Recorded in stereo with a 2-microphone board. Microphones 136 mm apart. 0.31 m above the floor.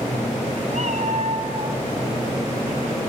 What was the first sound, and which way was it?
A cat meowing, 60° right (ahead or behind).